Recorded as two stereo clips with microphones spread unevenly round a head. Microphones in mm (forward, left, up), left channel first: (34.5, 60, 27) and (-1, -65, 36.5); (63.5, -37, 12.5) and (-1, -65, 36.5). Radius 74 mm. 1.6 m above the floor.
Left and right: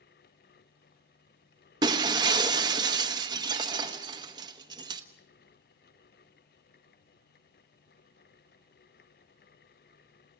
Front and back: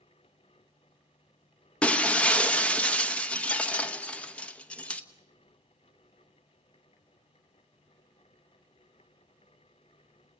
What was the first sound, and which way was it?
Breaking glass, 65° right.